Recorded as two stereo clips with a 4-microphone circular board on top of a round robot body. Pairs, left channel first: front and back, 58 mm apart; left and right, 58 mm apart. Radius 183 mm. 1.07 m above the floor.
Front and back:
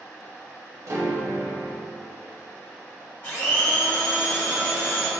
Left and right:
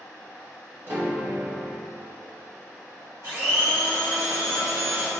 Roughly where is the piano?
Behind right.